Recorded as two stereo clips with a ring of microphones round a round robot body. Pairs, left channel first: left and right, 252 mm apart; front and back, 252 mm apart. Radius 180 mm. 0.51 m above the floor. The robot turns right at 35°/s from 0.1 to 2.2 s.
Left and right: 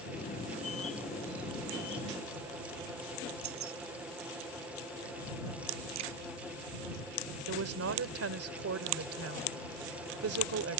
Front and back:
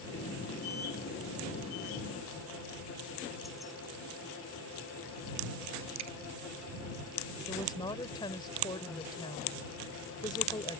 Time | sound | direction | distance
3.4 | keys jangling | 90° right | ?
6.0 | a crack | 135° right | ?
7.5 | a woman speaking | 75° right | ?